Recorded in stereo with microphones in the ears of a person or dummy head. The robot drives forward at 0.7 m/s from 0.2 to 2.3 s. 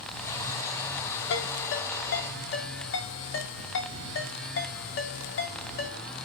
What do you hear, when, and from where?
1.3 s a ringtone: 65° left (ahead or behind), 2.5 m; by 6.0 s 60° left (ahead or behind), 2.5 m